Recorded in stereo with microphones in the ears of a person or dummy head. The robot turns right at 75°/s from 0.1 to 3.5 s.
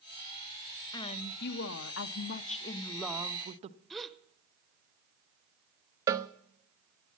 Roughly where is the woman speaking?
Ahead left.